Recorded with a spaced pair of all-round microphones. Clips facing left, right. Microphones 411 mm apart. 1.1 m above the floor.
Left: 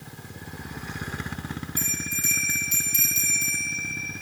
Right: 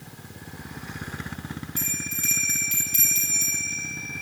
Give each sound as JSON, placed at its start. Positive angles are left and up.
{"t": 1.8, "sound": "a bell", "side_deg": -85, "distance_m": 2.5}